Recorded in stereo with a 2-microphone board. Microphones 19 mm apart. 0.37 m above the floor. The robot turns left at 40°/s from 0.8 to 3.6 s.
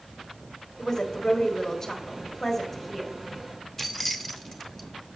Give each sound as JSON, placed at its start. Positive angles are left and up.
{"t": 0.8, "sound": "a woman speaking", "side_deg": 20, "distance_m": 1.5}
{"t": 3.8, "sound": "keys jangling", "side_deg": 10, "distance_m": 0.8}